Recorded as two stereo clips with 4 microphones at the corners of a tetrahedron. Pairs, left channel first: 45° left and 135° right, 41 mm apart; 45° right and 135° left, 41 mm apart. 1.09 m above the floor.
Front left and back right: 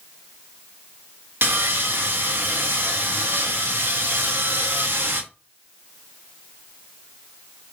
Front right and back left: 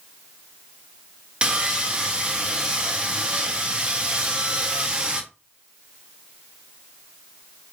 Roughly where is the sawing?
Behind.